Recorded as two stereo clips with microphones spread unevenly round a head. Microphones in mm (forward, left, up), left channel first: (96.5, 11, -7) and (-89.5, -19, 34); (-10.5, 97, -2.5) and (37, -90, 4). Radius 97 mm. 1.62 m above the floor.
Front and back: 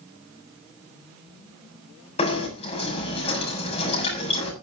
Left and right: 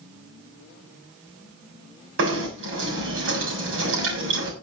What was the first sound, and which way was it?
Knocking, 55° right.